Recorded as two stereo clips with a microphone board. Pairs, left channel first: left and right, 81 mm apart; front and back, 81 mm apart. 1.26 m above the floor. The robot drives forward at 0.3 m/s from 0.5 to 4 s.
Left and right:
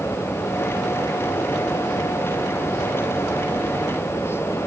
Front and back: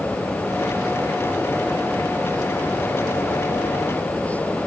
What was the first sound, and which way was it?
Only background noise.